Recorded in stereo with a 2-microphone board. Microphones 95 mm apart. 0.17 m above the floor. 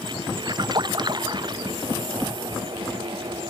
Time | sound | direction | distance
0.5 | a splash | 45° right (ahead or behind) | ?